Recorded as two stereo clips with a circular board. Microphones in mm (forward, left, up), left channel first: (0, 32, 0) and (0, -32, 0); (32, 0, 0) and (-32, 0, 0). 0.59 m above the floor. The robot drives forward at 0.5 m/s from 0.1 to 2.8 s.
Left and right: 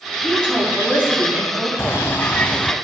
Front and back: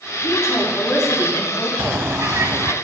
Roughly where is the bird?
Behind left.